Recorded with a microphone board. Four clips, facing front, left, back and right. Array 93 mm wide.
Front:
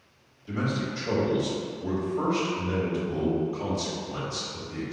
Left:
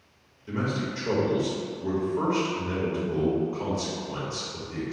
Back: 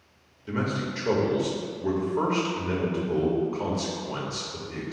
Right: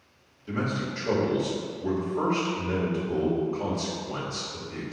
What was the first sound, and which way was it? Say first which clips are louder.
A man speaking: even, back 1 dB; 175° left.